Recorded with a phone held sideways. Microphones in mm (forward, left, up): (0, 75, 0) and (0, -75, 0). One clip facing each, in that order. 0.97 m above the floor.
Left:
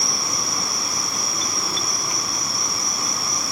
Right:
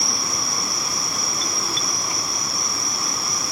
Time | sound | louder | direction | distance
0.0 | an insect | even | 10° right (ahead or behind) | 1.3 m